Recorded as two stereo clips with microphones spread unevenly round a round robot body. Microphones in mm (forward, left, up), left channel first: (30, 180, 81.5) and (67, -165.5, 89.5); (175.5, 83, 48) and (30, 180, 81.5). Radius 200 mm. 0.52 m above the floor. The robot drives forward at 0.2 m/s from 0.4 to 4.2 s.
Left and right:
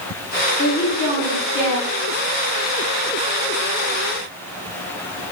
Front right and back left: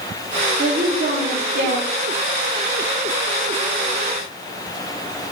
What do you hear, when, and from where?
0.6 s a woman speaking: 150° left, 1.0 m; by 1.9 s 160° left, 1.1 m